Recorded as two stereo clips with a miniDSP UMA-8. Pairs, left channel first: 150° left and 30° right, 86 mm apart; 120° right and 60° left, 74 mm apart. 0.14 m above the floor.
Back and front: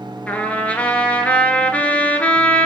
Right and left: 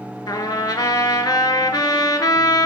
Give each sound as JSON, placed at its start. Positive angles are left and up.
{"t": 0.3, "sound": "a trumpet", "azimuth_deg": -135, "distance_m": 0.5}